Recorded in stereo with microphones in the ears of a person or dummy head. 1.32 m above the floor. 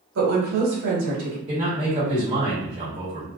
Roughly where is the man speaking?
Right.